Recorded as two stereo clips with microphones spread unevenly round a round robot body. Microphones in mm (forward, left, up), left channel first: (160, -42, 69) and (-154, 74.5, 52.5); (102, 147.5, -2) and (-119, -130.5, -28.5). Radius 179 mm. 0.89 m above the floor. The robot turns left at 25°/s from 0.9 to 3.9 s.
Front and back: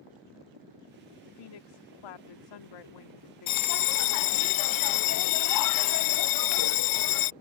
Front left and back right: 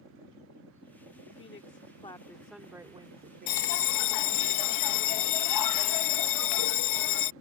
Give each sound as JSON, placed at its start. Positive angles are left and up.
{"t": 1.3, "sound": "a woman speaking", "azimuth_deg": -5}
{"t": 3.5, "sound": "a bell", "azimuth_deg": 20}